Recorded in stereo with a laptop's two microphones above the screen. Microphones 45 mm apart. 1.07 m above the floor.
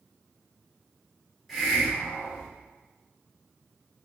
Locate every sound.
1.5 s a hiss: centre (ahead or behind), 1.7 m